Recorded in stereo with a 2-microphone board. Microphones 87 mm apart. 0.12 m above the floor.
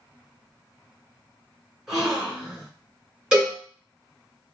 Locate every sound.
1.9 s a gasp: centre (ahead or behind), 1.7 m
3.3 s a cowbell: 10° right (ahead or behind), 1.8 m